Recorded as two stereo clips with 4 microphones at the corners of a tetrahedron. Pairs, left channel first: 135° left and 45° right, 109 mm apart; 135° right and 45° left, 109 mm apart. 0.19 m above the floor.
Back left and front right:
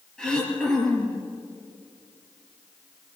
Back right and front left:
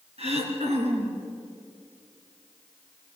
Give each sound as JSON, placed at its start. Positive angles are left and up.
{"t": 0.2, "sound": "throat clearing", "azimuth_deg": 50, "distance_m": 3.5}